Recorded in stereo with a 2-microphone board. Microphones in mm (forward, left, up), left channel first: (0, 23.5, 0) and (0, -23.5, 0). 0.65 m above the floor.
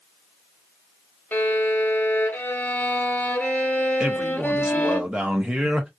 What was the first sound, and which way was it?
A violin, 40° left (ahead or behind).